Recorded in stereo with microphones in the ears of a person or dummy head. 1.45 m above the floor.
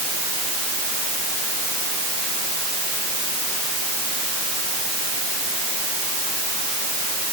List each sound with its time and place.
Only background noise.